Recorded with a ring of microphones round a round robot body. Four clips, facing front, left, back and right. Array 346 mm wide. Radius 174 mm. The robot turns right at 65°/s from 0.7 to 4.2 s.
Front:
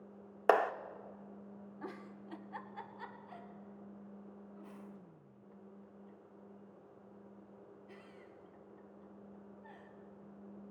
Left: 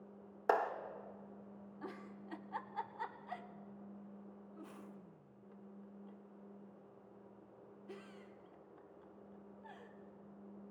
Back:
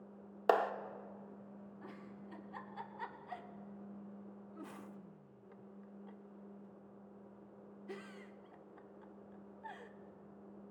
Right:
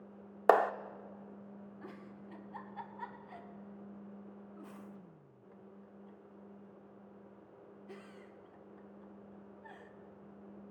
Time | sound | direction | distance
0.5 | a clap | 75° right | 0.7 m
1.8 | a giggle | 20° left | 1.2 m